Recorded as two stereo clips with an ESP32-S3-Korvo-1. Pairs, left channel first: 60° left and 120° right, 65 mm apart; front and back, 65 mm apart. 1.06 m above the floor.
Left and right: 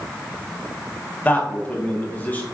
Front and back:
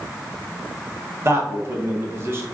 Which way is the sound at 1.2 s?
125° left.